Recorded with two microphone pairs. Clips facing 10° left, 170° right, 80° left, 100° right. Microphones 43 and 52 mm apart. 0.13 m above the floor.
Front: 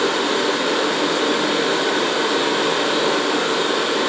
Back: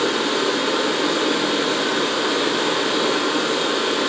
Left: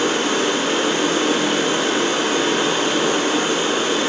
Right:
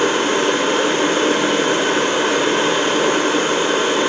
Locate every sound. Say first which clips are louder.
0.0 s running water: front 1 dB, right 3 dB; 40° right, 3.5 m